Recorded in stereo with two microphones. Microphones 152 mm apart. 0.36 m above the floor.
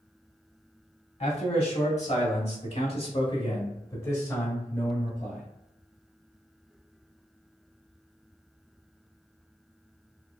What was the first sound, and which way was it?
A man speaking, 45° left (ahead or behind).